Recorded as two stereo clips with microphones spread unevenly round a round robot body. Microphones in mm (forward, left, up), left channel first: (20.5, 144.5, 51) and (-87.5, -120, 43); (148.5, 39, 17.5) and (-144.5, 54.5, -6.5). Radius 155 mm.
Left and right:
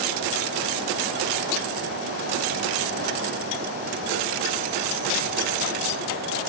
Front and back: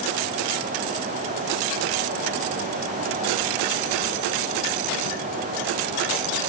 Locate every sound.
Only background noise.